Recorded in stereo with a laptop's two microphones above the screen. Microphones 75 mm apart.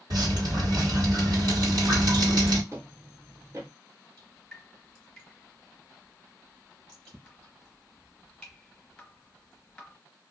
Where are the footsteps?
40° right (ahead or behind), 1.4 m.